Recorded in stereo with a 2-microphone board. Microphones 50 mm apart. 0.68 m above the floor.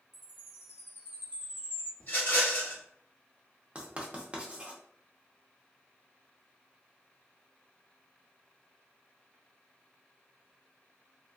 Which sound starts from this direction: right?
Writing, at 3.8 s.